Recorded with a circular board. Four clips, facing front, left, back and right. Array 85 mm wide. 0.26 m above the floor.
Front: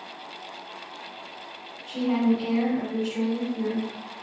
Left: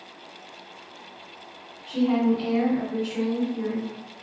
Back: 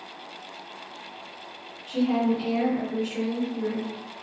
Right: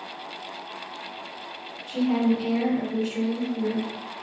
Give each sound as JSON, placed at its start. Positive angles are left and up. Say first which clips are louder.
{"t": 1.9, "sound": "a woman speaking", "louder": "left 1 dB, even", "azimuth_deg": 110, "distance_m": 1.9}